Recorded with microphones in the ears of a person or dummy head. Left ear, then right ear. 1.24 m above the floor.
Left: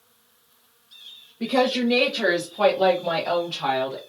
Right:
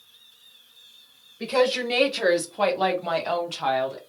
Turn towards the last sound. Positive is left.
turn(degrees=-25)  # may be behind; listen again after turning